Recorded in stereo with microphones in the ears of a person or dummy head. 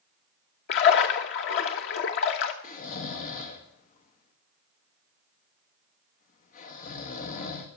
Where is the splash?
50° left (ahead or behind), 0.9 m.